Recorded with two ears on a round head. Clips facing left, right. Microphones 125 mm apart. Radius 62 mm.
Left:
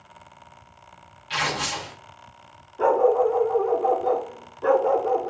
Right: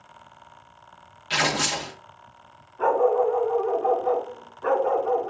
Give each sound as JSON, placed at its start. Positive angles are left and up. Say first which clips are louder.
{"t": 1.3, "sound": "tearing paper", "louder": "right 2 dB", "side_deg": -60, "distance_m": 0.8}
{"t": 2.8, "sound": "a dog barking", "louder": "left 2 dB", "side_deg": 35, "distance_m": 0.9}